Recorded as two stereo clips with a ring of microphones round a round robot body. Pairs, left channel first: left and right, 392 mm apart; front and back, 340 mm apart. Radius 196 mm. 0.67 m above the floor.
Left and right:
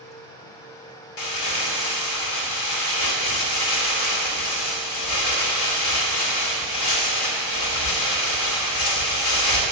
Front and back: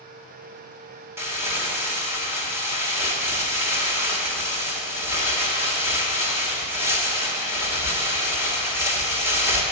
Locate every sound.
1.2 s crumpling: 100° left, 1.7 m